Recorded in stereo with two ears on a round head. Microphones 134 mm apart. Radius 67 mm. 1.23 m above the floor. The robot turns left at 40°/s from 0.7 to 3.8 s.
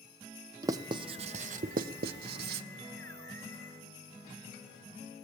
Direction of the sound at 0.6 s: 25° right (ahead or behind).